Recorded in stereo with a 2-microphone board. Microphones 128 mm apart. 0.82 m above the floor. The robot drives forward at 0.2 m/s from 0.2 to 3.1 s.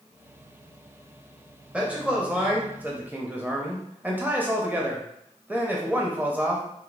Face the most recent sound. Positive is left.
turn(degrees=-15)  # may be behind; listen again after turning